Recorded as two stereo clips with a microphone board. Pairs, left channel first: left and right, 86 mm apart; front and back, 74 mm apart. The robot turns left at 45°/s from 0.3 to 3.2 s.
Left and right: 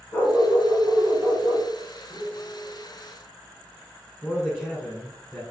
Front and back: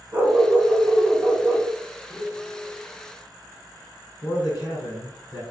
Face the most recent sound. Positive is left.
turn(degrees=15)